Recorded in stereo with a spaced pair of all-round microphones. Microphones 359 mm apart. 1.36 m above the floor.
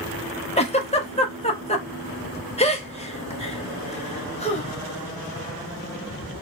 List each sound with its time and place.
0.6 s a giggle: 15° left (ahead or behind), 0.8 m